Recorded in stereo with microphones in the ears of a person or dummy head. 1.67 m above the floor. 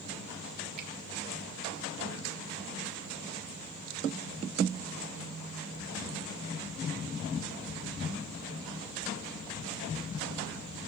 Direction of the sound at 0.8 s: 50° right (ahead or behind).